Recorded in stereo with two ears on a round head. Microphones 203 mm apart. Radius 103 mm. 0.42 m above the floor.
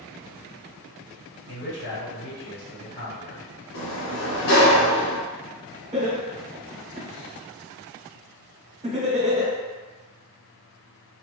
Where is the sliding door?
70° left (ahead or behind), 0.6 m.